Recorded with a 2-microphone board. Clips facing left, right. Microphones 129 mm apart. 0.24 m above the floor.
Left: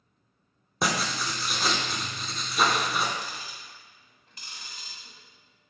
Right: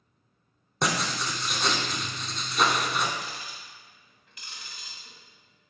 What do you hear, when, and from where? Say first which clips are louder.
0.8 s writing: even; centre (ahead or behind), 0.5 m
3.2 s ticking: even; 35° left (ahead or behind), 0.8 m